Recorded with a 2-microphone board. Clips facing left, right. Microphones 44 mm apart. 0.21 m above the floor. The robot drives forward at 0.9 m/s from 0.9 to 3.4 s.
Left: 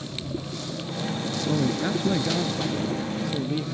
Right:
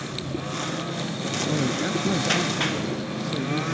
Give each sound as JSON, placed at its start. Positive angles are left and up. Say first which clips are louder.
{"t": 0.0, "sound": "a lawn mower", "louder": "right 2 dB", "side_deg": -50}
{"t": 1.5, "sound": "a man speaking", "louder": "left 1 dB", "side_deg": 10}